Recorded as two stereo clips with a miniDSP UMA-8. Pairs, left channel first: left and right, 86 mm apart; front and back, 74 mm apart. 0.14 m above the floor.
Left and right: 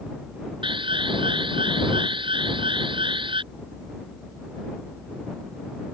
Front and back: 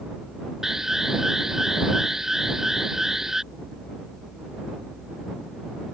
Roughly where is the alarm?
Right.